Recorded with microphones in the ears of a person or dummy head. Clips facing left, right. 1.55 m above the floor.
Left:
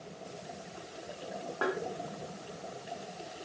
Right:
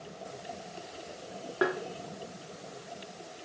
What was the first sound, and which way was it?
Tapping, 25° right (ahead or behind).